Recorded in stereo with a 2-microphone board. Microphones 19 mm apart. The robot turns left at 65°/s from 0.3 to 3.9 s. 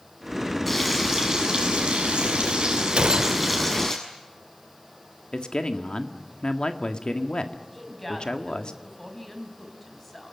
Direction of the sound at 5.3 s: 50° left (ahead or behind).